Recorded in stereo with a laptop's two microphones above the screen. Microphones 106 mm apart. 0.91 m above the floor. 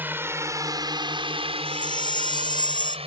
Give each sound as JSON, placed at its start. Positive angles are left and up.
{"t": 0.0, "sound": "a drone", "side_deg": -20}
{"t": 1.6, "sound": "a chime", "side_deg": 45}